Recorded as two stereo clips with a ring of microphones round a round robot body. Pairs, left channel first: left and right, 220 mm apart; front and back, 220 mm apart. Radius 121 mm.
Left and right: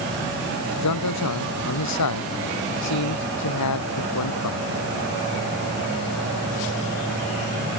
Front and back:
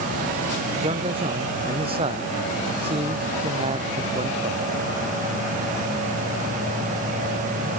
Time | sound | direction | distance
0.8 | a man speaking | 110° left | ?